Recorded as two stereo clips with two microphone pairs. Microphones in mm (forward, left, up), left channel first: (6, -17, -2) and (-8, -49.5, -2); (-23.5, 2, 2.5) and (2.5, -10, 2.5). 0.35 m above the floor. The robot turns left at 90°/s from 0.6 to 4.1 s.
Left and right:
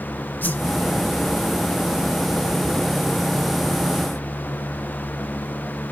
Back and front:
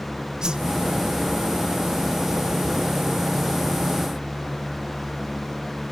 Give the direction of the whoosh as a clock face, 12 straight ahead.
11 o'clock.